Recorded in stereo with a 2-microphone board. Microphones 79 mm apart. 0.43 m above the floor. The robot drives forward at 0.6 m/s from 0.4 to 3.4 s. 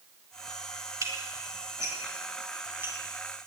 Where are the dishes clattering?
45° right (ahead or behind), 1.6 m; by 3.0 s 30° right (ahead or behind), 2.5 m.